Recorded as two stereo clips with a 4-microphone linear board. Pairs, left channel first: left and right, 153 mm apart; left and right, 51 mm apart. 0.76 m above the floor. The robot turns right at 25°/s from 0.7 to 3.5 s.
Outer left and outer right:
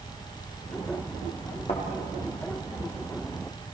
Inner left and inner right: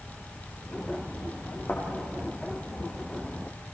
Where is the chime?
No chime in this recording.